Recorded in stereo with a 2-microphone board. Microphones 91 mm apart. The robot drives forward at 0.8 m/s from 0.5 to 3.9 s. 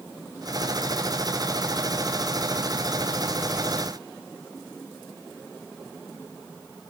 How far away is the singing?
No singing in this recording.